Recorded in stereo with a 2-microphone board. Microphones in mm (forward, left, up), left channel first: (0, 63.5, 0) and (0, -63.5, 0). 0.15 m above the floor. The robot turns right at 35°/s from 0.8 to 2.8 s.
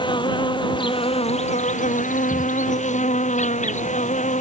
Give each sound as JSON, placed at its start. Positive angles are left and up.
{"t": 0.0, "sound": "an insect", "azimuth_deg": 40}